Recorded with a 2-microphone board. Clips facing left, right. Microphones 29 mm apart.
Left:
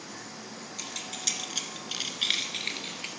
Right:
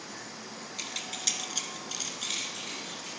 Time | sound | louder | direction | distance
0.8 | keys jangling | right 1 dB | 15° right (ahead or behind) | 1.8 m